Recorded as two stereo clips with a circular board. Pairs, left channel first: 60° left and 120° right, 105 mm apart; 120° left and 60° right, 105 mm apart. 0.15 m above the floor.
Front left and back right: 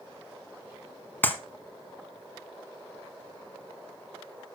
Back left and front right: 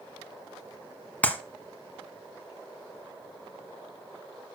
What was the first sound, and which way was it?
A clap, 75° left.